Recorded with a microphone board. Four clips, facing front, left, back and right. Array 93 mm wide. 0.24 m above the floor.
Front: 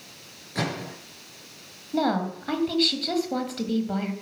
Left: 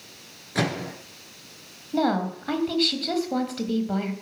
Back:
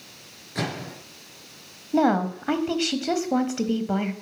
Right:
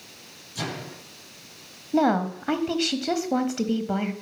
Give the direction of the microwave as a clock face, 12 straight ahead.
9 o'clock.